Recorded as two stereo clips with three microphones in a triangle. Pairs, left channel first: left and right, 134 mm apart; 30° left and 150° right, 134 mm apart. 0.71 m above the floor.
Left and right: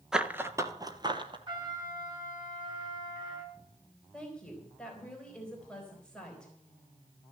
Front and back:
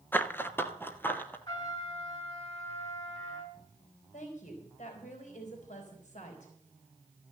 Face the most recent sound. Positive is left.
turn(degrees=5)